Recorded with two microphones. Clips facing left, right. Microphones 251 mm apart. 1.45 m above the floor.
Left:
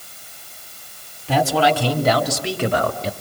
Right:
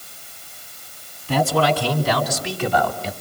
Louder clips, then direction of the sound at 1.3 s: Left 1 dB; 80° left.